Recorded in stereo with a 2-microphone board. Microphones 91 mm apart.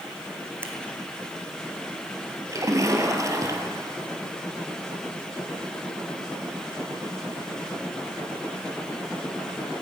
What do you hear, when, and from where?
0.6 s scissors: 25° right (ahead or behind), 1.8 m
2.5 s a splash: 35° right (ahead or behind), 1.5 m